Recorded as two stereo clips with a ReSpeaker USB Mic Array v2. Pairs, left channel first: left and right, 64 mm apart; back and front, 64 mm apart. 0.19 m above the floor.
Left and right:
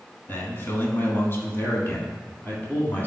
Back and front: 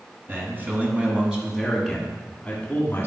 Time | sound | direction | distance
0.3 | a man speaking | 45° left | 2 m